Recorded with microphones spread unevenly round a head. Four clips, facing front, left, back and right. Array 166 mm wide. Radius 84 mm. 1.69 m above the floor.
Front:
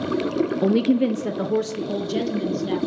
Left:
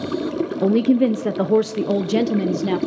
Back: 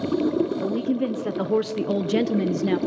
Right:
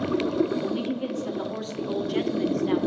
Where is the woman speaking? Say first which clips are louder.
Left 12 dB, front 5 dB; 55° left, 1.2 m; by 2.8 s 125° left, 1.9 m.